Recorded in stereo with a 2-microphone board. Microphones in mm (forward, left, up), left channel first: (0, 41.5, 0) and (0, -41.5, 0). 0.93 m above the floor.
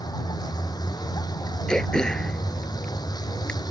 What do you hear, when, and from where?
0.0 s a vehicle: 55° left (ahead or behind)
1.7 s throat clearing: 10° left (ahead or behind)